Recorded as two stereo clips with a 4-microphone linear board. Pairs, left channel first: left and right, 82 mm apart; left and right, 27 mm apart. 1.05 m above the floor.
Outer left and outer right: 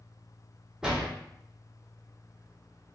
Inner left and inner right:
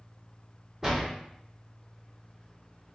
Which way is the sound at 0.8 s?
10° right (ahead or behind).